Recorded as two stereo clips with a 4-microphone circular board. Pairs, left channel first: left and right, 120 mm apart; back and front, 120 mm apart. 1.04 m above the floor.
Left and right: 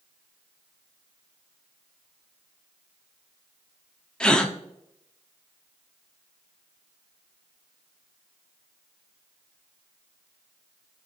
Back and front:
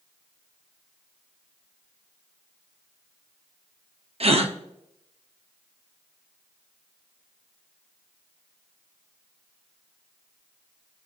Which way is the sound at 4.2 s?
10° left.